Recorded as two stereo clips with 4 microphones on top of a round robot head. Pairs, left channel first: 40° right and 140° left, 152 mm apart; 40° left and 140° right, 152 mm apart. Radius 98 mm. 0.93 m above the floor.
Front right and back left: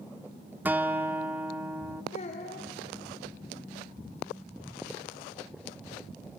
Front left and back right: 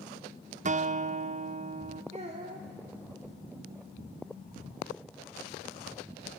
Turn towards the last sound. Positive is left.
turn(degrees=-90)